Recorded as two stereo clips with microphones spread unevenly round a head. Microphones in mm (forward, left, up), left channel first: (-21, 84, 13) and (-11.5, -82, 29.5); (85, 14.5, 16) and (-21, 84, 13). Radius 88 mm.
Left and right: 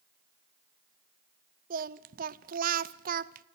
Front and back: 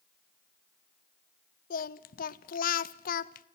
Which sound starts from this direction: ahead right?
Singing, at 1.7 s.